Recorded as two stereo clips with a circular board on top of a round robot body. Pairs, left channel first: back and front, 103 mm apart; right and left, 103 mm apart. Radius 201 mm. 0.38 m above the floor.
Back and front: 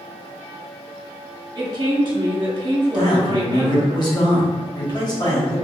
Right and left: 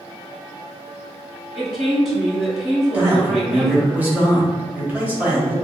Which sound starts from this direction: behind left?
A man speaking, at 2.9 s.